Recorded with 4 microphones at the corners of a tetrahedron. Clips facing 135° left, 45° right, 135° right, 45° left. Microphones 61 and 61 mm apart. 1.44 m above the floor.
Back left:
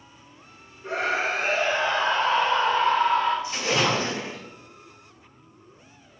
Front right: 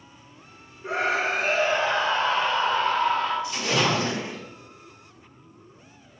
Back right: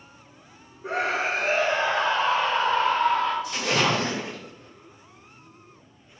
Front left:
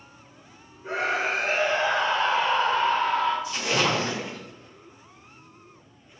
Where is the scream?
120° right, 1.1 m; by 3.3 s 165° right, 2.5 m.